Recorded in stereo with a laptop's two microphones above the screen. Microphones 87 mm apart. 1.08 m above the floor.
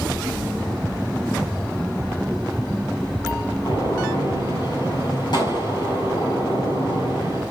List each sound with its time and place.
3.6 s a gunshot: 60° left (ahead or behind), 6 m